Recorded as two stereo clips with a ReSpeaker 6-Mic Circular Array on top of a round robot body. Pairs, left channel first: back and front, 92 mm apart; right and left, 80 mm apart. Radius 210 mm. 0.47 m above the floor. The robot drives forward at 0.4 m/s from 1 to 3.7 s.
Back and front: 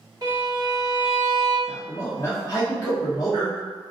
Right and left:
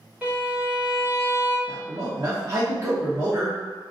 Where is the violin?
20° left, 1.8 m; by 1.6 s 25° left, 1.7 m.